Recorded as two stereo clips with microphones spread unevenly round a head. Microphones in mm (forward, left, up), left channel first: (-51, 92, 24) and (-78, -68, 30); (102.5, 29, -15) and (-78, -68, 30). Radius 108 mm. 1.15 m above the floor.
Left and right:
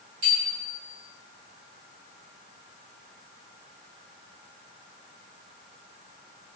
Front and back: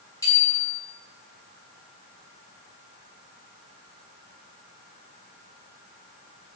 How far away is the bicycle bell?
About 8 m.